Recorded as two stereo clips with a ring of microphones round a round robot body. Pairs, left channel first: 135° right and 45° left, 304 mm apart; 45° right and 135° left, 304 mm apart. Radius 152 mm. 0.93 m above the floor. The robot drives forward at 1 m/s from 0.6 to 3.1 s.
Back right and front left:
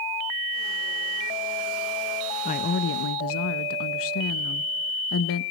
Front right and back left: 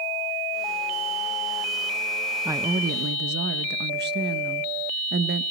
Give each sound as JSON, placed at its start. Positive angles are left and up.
{"t": 2.5, "sound": "a woman speaking", "azimuth_deg": -150, "distance_m": 0.5}